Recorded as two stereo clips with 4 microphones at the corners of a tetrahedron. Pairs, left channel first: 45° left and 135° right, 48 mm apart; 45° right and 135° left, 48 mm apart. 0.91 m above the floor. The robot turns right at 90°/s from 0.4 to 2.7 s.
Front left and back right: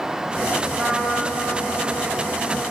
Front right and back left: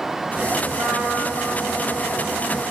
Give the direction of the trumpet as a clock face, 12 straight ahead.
7 o'clock.